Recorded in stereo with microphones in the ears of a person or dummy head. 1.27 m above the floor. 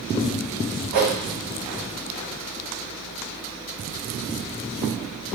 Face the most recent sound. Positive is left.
turn(degrees=-50)  # may be behind; listen again after turning